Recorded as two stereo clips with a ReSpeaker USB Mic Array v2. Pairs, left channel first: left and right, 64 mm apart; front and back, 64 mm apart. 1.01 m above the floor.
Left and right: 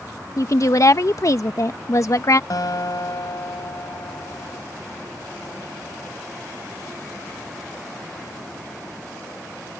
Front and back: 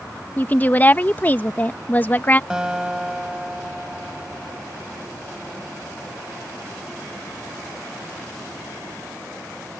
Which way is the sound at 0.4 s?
60° left.